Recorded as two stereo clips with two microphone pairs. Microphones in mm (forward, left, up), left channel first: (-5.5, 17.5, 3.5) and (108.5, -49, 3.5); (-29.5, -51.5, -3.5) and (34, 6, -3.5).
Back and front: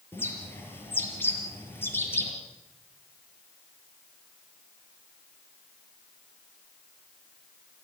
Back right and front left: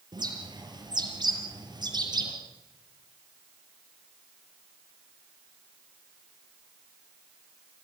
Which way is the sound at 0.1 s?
75° left.